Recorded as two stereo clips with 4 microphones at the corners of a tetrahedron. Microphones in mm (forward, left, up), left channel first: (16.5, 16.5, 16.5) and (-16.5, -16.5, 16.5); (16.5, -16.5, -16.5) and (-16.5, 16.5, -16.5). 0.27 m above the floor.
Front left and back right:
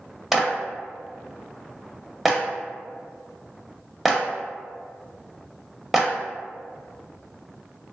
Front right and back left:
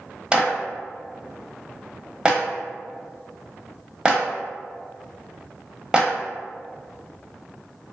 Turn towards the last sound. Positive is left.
turn(degrees=140)